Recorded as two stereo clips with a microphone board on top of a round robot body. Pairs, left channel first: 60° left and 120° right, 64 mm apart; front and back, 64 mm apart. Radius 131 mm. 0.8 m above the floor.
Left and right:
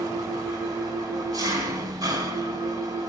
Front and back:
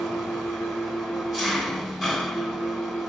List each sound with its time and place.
0.0 s an engine running: 95° right, 3 m